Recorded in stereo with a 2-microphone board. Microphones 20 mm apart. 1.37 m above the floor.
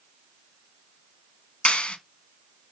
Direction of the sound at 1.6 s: 60° left (ahead or behind).